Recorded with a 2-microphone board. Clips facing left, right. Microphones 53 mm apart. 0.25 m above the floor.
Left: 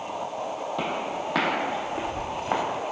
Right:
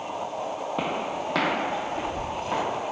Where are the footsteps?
20° right (ahead or behind), 0.7 m; by 2.6 s 35° left (ahead or behind), 1.4 m.